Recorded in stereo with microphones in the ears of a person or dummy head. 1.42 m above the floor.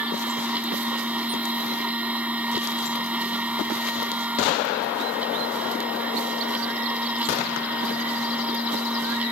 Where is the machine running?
Centre (ahead or behind).